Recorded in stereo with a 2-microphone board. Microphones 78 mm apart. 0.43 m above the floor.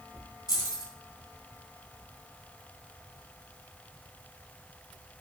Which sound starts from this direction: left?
Keys jangling, at 0.5 s.